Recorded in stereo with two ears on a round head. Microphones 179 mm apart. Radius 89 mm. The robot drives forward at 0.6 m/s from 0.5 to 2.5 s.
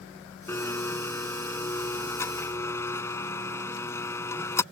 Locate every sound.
0.5 s a blender: 10° left (ahead or behind); by 4.6 s 15° left (ahead or behind)